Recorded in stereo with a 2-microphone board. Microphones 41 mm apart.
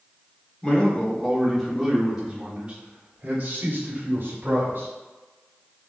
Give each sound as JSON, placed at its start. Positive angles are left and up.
{"t": 0.6, "sound": "a man speaking", "side_deg": 20, "distance_m": 1.4}